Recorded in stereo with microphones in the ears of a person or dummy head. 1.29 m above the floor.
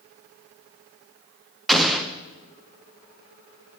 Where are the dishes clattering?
No dishes clattering in this recording.